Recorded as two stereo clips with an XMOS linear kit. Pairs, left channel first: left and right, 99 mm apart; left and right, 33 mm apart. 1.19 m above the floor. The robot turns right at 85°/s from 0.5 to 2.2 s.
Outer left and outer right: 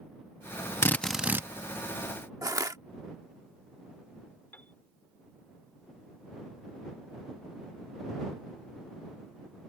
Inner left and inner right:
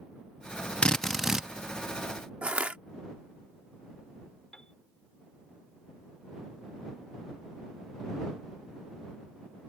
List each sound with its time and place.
0.8 s a drill: 155° left; by 1.5 s 150° right
2.4 s crushing: 35° right (ahead or behind)
4.5 s a piano: 20° left (ahead or behind)